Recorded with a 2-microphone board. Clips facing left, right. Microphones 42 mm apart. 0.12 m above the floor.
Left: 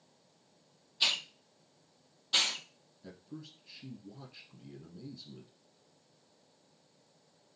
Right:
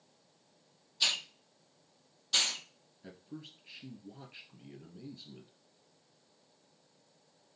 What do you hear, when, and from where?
1.0 s a hiss: 15° left (ahead or behind), 0.7 m
3.0 s a man speaking: 35° right (ahead or behind), 2 m